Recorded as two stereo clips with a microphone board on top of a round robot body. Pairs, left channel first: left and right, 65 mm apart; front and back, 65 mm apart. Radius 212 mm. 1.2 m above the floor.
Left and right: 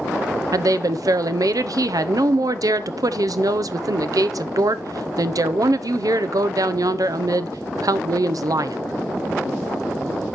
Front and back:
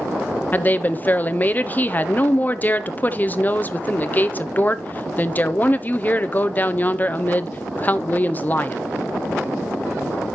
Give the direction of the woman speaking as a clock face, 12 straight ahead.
2 o'clock.